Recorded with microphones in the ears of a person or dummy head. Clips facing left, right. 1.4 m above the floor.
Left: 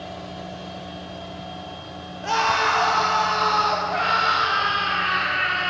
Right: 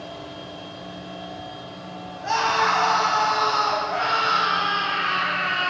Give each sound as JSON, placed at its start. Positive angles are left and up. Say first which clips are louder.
{"t": 2.2, "sound": "a scream", "louder": "even", "side_deg": 45, "distance_m": 4.0}